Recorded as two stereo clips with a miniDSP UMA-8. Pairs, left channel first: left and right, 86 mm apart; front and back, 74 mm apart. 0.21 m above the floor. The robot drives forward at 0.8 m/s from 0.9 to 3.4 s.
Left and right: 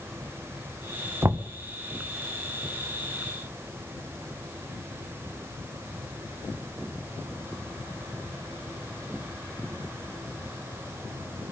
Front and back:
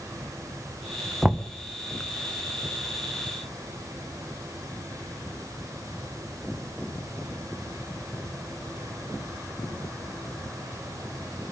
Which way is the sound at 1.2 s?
100° right.